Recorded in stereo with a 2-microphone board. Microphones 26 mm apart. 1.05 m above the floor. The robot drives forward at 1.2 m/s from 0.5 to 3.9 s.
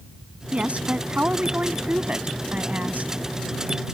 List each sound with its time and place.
0.5 s a woman speaking: 50° right (ahead or behind); by 3.1 s 70° right (ahead or behind)